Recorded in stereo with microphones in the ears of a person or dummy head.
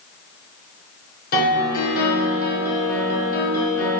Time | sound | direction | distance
1.3 | a piano | 50° left (ahead or behind) | 1.0 m